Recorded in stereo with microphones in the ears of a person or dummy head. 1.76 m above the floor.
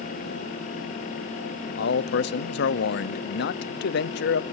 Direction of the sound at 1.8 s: 65° left (ahead or behind).